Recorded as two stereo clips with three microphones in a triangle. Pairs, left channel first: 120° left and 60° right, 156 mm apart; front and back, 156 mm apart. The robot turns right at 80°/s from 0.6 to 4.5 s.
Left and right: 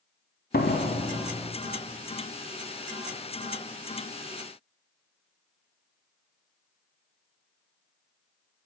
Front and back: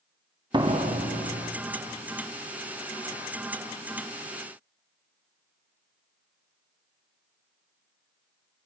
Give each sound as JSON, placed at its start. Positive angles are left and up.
{"t": 0.5, "sound": "a door slam", "azimuth_deg": 120, "distance_m": 1.6}